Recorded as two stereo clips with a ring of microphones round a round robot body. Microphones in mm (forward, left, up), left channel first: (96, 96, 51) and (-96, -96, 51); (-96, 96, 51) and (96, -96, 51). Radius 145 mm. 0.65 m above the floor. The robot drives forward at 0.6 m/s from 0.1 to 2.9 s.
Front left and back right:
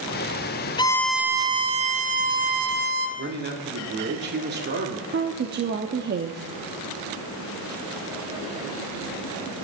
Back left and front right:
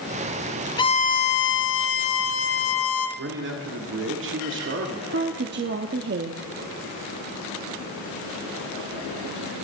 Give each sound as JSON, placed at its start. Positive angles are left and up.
{"t": 0.8, "sound": "a violin", "azimuth_deg": 90, "distance_m": 0.5}
{"t": 3.2, "sound": "a man speaking", "azimuth_deg": -85, "distance_m": 1.7}
{"t": 5.1, "sound": "a woman speaking", "azimuth_deg": -90, "distance_m": 0.8}